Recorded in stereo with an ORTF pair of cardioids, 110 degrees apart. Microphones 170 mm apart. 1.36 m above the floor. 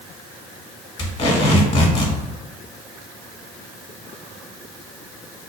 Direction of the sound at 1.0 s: 40° left.